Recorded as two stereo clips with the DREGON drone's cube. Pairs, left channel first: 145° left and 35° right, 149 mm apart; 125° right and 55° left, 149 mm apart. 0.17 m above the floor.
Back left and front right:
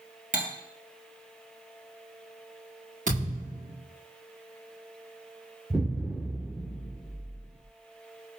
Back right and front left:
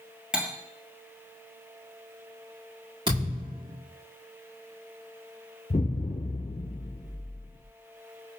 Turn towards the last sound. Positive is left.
turn(degrees=-120)